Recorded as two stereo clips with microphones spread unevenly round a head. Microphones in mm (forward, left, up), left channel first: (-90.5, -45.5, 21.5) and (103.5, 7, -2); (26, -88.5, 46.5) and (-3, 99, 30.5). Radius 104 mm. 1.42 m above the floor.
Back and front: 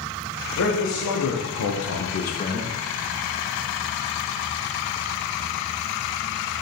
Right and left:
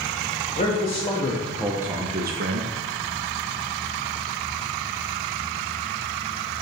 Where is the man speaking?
140° right, 1.6 m; by 2.7 s 115° left, 1.0 m.